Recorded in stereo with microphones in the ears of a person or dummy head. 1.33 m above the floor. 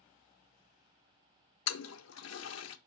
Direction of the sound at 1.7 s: 80° left.